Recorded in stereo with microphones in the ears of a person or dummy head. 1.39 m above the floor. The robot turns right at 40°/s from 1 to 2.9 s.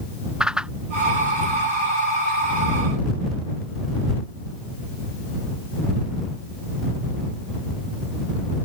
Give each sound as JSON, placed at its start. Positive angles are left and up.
{"t": 0.4, "sound": "a whoosh", "side_deg": -5}